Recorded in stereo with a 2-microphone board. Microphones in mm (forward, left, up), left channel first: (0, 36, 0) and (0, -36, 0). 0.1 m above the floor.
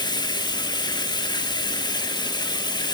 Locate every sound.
0.0 s running water: 80° left, 1.1 m